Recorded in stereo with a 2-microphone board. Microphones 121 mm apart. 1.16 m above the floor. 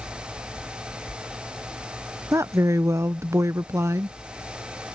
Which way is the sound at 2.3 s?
25° right (ahead or behind).